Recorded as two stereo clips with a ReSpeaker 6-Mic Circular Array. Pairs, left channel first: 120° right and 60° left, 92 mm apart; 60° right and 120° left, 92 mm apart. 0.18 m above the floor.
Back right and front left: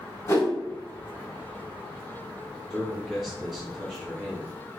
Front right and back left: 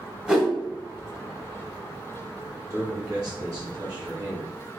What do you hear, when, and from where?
0.3 s a whoosh: 165° right, 0.8 m
2.7 s a man speaking: 150° left, 2.0 m